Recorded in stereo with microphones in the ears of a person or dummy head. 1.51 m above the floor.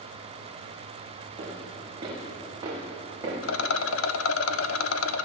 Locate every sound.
1.4 s footsteps: 35° right (ahead or behind), 6.5 m; by 3.3 s 25° right (ahead or behind), 7 m
3.4 s a rattle: 70° left (ahead or behind), 0.7 m